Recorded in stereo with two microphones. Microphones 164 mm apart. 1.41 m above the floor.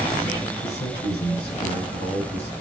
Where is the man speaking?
85° left, 6.5 m.